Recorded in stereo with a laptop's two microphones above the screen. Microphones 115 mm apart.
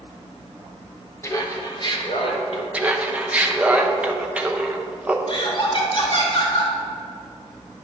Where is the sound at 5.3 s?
50° left (ahead or behind), 2.5 m.